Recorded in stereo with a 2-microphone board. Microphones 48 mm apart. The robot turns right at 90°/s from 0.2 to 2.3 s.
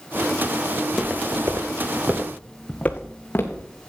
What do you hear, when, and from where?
0.8 s footsteps: 15° left (ahead or behind), 1.9 m; by 3.7 s 45° left (ahead or behind), 3 m